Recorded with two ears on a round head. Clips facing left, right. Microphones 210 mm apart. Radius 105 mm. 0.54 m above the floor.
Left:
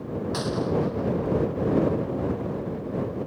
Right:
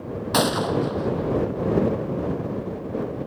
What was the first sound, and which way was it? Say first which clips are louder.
A gunshot: right 4 dB; 75° right (ahead or behind).